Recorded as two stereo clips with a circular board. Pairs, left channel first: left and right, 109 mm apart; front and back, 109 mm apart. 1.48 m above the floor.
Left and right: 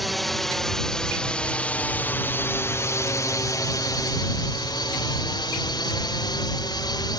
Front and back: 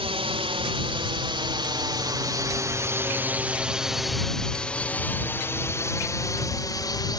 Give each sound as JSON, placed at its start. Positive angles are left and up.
{"t": 0.0, "sound": "a drone", "azimuth_deg": 180}